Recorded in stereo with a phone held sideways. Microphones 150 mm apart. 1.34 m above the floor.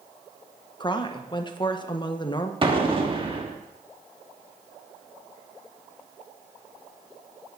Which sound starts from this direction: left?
A woman speaking, at 0.8 s.